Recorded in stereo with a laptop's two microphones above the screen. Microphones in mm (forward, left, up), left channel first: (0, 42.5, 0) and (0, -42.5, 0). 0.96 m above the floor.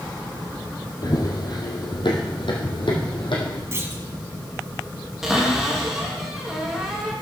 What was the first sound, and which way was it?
Running footsteps, 50° left (ahead or behind).